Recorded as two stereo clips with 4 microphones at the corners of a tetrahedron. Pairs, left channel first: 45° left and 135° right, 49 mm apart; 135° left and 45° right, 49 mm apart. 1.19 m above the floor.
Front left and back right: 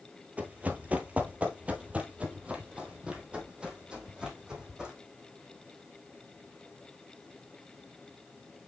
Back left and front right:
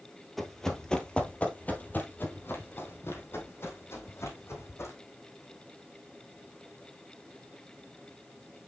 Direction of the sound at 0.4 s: 140° right.